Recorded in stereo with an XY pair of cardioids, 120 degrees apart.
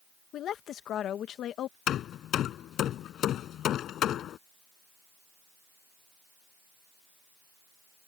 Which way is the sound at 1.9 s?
60° left.